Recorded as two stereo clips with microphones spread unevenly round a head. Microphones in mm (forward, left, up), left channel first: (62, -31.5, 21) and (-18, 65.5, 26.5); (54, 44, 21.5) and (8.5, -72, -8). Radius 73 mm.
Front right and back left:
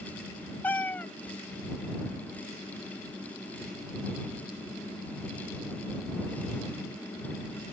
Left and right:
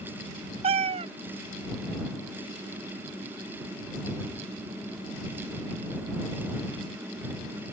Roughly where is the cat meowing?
Behind right.